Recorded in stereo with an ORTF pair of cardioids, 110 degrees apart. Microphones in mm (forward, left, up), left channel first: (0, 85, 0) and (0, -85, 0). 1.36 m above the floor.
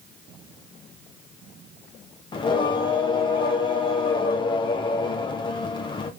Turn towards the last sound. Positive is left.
turn(degrees=30)